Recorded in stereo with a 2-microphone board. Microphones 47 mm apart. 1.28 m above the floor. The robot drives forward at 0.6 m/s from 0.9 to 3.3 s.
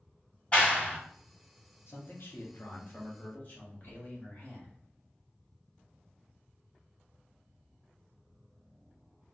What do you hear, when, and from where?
0.5 s a clap: 30° left (ahead or behind), 1.5 m
1.9 s a man speaking: 60° left (ahead or behind), 0.8 m; by 4.7 s 35° left (ahead or behind), 1.2 m